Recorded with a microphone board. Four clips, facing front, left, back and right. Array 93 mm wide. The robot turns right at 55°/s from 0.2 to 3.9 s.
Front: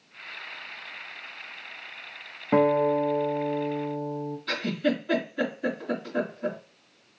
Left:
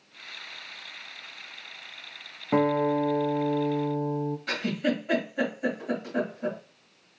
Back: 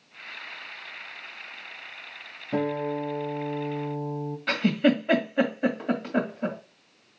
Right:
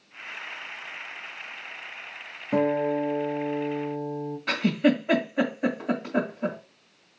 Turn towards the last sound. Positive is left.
turn(degrees=-150)